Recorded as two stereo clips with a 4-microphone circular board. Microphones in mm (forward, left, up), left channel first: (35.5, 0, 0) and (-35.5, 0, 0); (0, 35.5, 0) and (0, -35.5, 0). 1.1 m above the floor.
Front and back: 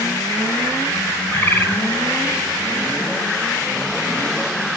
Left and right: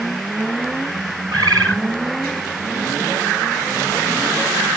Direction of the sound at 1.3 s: 60° right.